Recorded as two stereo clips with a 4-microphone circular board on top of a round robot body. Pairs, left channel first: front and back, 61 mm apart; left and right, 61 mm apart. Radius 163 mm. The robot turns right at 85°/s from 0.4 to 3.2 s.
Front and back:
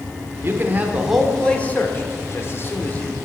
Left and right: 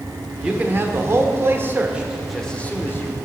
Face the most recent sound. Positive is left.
turn(degrees=80)